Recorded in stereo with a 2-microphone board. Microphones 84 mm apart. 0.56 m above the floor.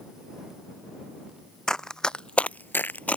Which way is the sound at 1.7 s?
5° left (ahead or behind).